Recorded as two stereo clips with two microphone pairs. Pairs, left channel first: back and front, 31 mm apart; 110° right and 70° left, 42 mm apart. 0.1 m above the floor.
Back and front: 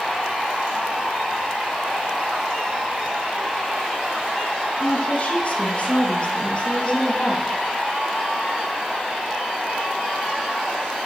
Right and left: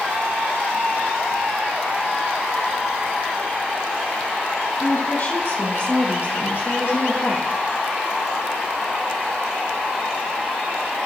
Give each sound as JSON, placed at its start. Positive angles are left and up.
{"t": 4.8, "sound": "a woman speaking", "azimuth_deg": -145, "distance_m": 3.0}